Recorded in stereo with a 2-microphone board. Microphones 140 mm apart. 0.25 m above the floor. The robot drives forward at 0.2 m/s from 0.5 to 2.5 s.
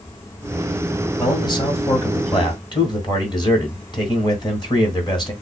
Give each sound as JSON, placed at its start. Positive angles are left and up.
{"t": 1.2, "sound": "a man speaking", "side_deg": 35, "distance_m": 1.4}